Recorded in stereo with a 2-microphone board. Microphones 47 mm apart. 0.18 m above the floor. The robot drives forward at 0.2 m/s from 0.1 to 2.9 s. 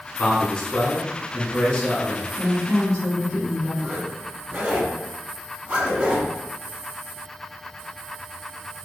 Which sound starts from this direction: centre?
A woman speaking, at 2.4 s.